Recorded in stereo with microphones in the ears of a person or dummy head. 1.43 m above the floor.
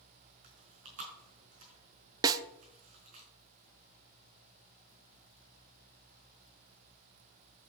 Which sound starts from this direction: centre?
A snare drum, at 2.2 s.